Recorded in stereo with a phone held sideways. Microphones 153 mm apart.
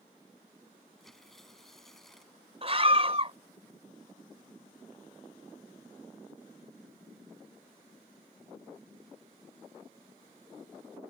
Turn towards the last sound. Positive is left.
turn(degrees=-40)  # may be behind; listen again after turning